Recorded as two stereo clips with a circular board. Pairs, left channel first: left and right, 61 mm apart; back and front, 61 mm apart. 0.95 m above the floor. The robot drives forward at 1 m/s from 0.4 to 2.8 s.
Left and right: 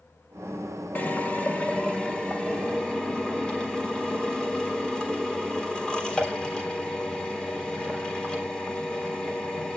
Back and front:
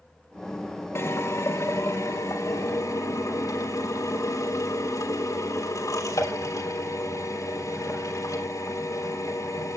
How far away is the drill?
About 1.7 m.